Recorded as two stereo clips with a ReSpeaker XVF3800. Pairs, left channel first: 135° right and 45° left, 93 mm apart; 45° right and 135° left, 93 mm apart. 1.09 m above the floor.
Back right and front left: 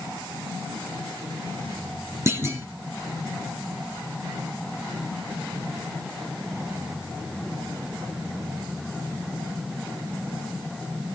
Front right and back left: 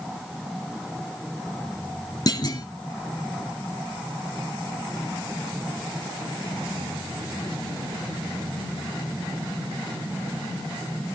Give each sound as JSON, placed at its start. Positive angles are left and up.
{"t": 2.3, "sound": "a clunk", "azimuth_deg": -10, "distance_m": 1.7}